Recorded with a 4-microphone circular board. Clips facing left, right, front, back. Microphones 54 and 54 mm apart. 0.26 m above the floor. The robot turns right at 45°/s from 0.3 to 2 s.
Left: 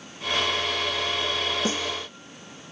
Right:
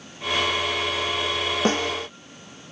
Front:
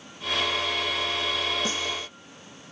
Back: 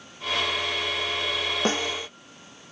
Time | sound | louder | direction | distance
1.6 | a snare drum | right 5 dB, back 4 dB | 130° right | ?